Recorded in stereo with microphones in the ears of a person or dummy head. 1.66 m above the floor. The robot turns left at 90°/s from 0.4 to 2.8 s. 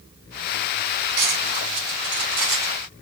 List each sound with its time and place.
1.2 s cutlery clinking: 55° right (ahead or behind), 3 m; by 2.9 s 25° left (ahead or behind), 3 m